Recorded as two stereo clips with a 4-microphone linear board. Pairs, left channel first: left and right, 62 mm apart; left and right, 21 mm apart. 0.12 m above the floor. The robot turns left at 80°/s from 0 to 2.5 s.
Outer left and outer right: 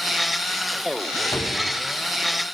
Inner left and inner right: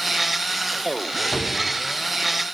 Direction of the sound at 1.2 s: 45° left (ahead or behind).